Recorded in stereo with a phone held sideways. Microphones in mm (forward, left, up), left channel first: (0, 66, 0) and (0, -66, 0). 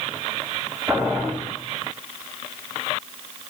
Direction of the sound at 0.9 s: 20° right (ahead or behind).